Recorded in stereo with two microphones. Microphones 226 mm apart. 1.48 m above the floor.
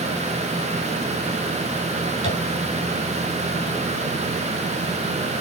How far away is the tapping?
About 5 m.